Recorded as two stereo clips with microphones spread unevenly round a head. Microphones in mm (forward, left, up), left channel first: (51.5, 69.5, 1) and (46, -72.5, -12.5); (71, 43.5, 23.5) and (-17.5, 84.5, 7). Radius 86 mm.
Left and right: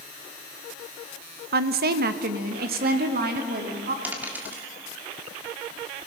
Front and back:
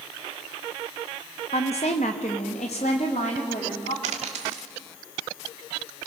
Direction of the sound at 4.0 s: 175° right.